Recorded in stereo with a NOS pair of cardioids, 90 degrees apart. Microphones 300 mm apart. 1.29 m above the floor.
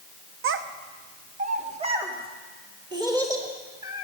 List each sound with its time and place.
0.4 s a child speaking: 45° right, 0.7 m; by 4.0 s 10° right, 2.5 m